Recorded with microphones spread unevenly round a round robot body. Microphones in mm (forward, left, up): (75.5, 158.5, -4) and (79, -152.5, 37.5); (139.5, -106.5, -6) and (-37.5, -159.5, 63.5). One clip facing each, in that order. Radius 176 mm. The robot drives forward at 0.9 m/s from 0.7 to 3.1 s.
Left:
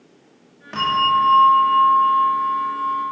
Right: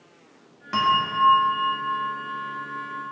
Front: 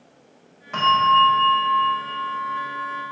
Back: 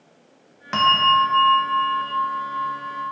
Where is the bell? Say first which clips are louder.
Left 3 dB, front 1 dB; 165° right, 1.7 m; by 3.0 s 175° right, 3.5 m.